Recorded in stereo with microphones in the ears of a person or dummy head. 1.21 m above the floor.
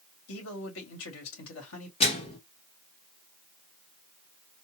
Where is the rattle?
No rattle in this recording.